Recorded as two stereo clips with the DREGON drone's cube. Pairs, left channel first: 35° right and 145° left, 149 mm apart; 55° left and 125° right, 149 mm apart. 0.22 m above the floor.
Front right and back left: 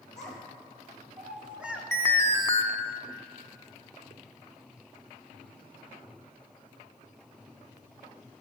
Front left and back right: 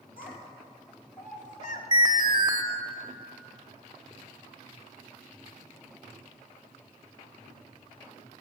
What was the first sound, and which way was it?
A child speaking, 55° left.